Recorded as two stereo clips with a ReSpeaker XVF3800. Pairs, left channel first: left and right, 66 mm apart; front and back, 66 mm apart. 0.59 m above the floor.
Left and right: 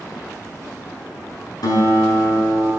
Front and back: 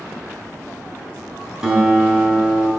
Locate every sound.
1.6 s a guitar: 105° left, 3.5 m